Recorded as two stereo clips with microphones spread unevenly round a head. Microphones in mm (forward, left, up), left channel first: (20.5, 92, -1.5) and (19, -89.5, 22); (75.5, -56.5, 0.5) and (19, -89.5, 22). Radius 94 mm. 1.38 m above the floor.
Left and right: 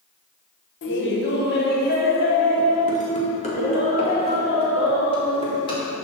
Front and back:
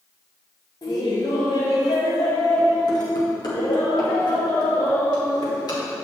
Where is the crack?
No crack in this recording.